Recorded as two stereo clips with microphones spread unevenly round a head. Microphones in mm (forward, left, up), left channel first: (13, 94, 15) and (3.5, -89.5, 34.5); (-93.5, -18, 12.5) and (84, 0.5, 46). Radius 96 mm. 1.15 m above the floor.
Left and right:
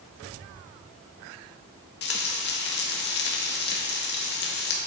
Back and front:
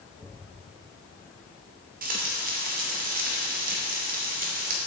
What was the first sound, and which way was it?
Frying, 55° left.